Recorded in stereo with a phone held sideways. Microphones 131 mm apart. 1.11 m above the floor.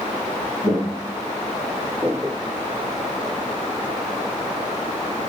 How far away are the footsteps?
About 1.3 m.